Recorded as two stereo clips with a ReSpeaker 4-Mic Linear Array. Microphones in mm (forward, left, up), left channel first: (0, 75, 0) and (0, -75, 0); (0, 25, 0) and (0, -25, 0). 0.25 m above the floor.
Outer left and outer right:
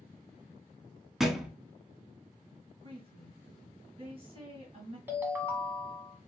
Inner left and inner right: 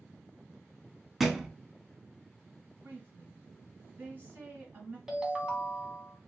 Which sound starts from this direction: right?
A woman speaking, at 2.8 s.